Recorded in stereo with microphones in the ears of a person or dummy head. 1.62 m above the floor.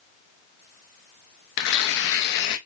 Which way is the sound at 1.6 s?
60° left (ahead or behind).